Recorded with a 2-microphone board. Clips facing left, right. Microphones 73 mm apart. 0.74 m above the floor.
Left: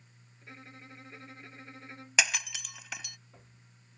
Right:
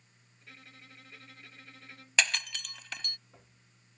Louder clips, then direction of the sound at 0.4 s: Left 5 dB; 25° left (ahead or behind).